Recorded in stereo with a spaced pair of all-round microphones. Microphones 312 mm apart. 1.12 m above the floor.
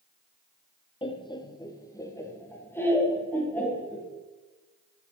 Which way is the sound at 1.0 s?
15° left (ahead or behind).